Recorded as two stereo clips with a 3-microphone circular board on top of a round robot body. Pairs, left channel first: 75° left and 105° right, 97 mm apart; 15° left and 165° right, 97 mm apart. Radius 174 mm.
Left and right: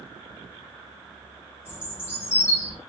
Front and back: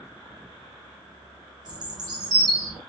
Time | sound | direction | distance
1.6 | a bird | 145° left | 1.1 m